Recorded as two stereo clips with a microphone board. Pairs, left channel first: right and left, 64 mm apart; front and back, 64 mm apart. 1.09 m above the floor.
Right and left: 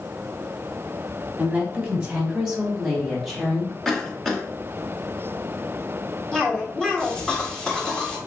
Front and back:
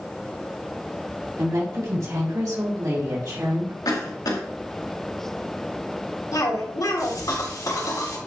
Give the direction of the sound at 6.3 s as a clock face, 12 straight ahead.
12 o'clock.